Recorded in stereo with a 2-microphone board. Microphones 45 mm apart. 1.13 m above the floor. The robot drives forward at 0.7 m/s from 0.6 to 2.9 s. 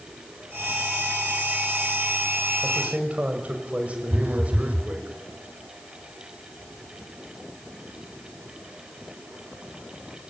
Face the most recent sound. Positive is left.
turn(degrees=-40)  # may be behind; listen again after turning